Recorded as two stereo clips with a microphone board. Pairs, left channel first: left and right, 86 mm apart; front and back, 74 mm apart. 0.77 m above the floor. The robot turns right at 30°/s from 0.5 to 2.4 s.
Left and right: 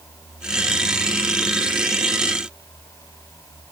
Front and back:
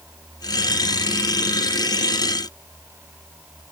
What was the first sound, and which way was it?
Only background noise.